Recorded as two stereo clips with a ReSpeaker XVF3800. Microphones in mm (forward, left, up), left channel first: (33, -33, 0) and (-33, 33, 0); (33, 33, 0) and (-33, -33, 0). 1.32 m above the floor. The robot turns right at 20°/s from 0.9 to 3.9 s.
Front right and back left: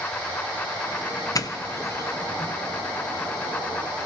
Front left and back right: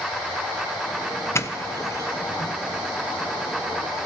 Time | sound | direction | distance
1.4 | a doorbell | 10° right | 0.9 m